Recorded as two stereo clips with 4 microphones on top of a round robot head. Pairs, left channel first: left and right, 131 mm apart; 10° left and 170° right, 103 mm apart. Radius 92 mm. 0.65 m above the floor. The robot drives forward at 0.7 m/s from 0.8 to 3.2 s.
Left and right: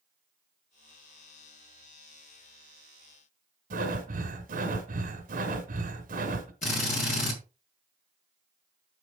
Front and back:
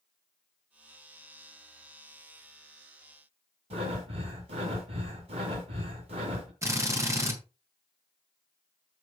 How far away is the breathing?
About 1.8 m.